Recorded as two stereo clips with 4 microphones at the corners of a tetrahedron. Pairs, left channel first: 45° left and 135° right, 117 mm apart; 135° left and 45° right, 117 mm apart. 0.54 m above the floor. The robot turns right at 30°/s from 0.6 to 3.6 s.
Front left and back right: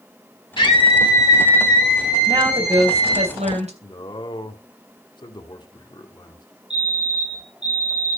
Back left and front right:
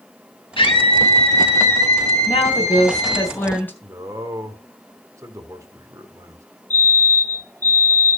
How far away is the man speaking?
About 1.8 m.